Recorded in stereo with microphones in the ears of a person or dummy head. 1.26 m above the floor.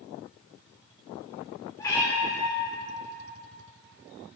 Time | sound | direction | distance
1.8 | a cat meowing | 20° left (ahead or behind) | 1.7 m